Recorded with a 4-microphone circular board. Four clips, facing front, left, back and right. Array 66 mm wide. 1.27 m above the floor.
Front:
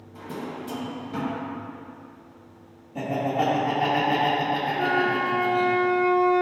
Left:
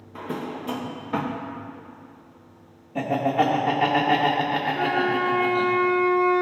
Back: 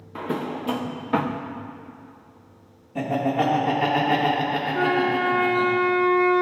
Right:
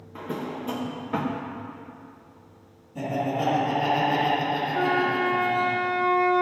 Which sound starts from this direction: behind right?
A flute, at 4.7 s.